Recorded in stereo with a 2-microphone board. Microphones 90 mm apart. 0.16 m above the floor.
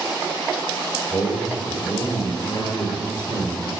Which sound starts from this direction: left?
A man speaking, at 1.1 s.